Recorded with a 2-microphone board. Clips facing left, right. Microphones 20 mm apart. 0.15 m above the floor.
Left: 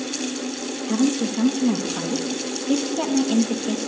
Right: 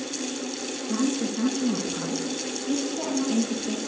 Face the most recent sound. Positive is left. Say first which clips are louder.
# left 5 dB
turn(degrees=35)  # may be behind; listen again after turning